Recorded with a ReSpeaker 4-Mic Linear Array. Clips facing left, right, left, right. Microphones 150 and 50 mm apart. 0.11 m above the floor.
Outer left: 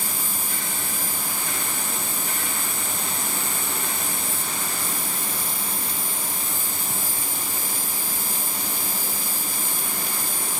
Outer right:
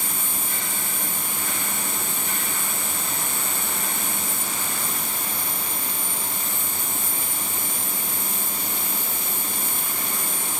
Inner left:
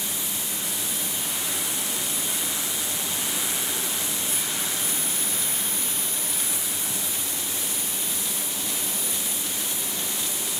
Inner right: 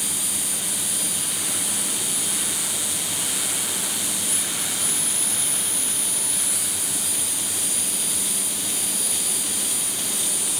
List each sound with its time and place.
0.0 s an insect: 35° left (ahead or behind)